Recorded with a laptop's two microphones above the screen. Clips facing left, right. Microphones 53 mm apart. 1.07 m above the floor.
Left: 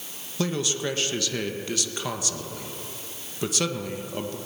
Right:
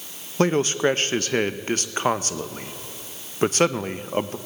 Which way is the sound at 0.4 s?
40° right (ahead or behind).